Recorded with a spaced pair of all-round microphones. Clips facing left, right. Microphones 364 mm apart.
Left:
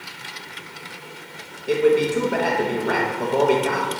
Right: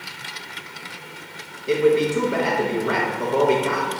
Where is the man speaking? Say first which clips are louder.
Even; 5° right (ahead or behind), 1.2 m.